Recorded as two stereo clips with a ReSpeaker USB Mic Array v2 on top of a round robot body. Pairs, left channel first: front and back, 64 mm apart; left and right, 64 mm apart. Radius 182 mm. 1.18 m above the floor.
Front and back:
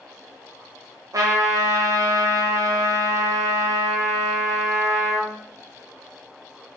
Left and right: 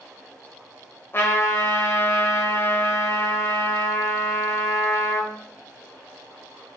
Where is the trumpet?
145° left, 0.9 m.